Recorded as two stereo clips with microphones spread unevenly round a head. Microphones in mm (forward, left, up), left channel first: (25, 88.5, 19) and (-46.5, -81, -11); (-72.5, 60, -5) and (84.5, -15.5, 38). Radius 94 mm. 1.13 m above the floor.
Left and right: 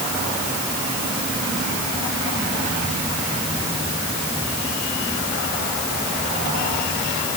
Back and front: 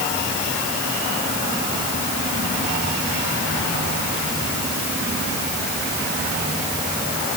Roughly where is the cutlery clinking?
No cutlery clinking in this recording.